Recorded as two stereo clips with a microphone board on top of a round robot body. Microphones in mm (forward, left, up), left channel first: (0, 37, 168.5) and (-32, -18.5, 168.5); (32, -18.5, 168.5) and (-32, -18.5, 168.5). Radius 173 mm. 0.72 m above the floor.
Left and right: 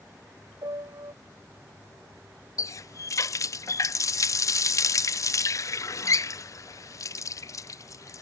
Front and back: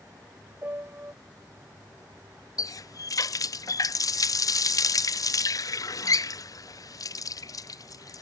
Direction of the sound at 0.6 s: 120° right.